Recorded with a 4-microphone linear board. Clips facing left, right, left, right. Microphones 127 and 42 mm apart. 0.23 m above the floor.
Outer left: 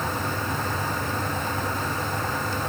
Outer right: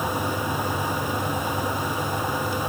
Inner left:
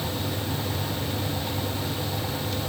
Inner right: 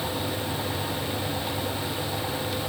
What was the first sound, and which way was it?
Only background noise.